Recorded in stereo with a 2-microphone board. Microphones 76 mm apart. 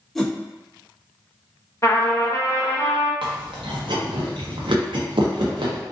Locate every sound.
0.1 s a whoosh: 5° left (ahead or behind), 0.5 m
1.8 s a trumpet: 35° left (ahead or behind), 0.7 m
3.2 s chewing: 80° right, 0.6 m